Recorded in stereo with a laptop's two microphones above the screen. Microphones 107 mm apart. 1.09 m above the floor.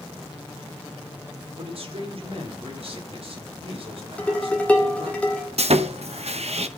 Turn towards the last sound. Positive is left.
turn(degrees=-75)  # may be behind; listen again after turning